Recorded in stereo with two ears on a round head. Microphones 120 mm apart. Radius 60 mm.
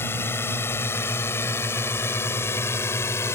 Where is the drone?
20° left (ahead or behind).